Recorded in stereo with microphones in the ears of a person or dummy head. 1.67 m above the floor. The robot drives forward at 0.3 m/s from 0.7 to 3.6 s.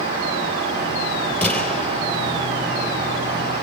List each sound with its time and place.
1.4 s a gunshot: centre (ahead or behind), 4.5 m